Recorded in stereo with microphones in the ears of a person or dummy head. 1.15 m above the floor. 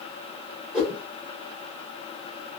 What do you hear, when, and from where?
0.7 s a whoosh: 15° right (ahead or behind), 1.7 m